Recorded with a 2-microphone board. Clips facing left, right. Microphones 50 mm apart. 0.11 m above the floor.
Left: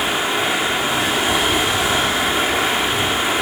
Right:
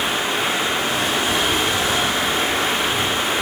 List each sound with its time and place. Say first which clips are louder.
0.0 s running water: left 2 dB; 10° left (ahead or behind), 3 m